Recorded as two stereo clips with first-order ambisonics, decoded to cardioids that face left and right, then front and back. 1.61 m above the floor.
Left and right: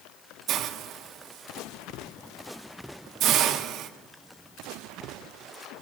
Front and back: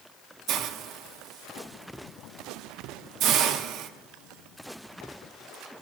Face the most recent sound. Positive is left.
turn(degrees=-135)